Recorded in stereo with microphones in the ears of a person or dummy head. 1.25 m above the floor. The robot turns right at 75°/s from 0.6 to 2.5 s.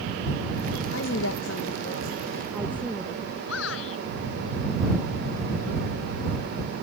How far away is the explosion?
No explosion in this recording.